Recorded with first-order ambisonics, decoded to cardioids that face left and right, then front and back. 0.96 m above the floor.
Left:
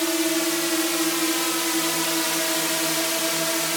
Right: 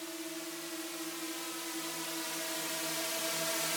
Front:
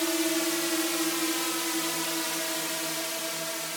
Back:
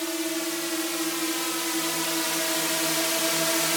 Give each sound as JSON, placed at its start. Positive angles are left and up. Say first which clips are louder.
{"t": 0.0, "sound": "a drone", "louder": "left 19 dB, front 2 dB", "azimuth_deg": 80}